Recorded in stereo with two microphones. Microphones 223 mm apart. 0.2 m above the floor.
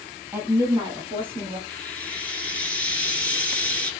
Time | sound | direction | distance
0.3 | a woman speaking | 10° right (ahead or behind) | 1.2 m
1.7 | frying | 5° left (ahead or behind) | 1.3 m